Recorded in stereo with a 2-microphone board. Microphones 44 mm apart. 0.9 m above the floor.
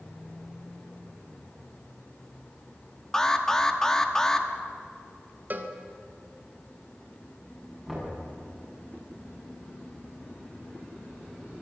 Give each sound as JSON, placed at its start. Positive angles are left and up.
{"t": 3.1, "sound": "an alarm", "side_deg": 15, "distance_m": 1.3}
{"t": 5.5, "sound": "a cowbell", "side_deg": -45, "distance_m": 1.5}
{"t": 7.9, "sound": "knocking", "side_deg": -5, "distance_m": 7.5}